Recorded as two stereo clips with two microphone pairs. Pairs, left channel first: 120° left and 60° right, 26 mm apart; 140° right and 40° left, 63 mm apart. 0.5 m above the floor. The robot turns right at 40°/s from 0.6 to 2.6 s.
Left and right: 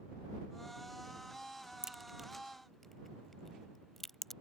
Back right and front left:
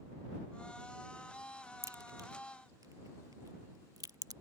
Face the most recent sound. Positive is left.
turn(degrees=40)